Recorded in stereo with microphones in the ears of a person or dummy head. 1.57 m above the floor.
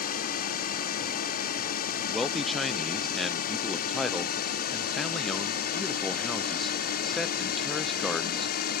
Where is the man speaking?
Centre (ahead or behind).